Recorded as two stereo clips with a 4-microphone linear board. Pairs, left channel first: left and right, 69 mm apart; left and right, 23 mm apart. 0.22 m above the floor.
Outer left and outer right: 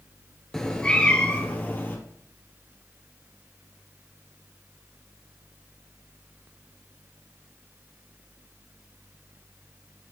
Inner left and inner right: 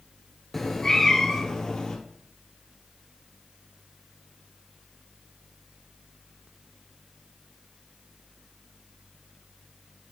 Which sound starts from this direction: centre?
A cat meowing, at 0.5 s.